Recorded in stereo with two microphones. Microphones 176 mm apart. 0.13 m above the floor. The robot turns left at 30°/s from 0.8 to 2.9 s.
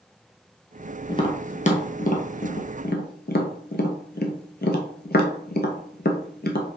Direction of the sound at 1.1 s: 25° left (ahead or behind).